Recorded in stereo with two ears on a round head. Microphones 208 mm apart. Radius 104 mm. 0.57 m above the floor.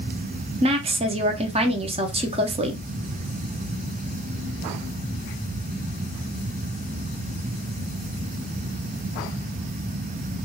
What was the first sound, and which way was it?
A woman speaking, 25° right (ahead or behind).